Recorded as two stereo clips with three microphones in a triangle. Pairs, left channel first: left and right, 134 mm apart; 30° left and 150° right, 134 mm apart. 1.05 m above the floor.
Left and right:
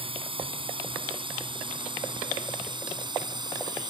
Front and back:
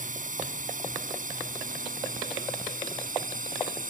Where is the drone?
135° right; by 3.9 s 145° right.